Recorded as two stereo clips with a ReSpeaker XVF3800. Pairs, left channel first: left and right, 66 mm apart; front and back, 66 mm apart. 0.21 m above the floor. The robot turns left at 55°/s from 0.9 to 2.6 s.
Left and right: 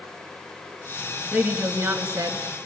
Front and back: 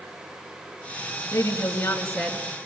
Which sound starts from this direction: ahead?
A woman speaking, at 1.3 s.